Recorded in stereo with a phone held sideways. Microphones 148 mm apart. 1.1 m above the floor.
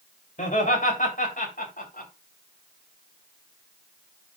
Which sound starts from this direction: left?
Laughter, at 0.4 s.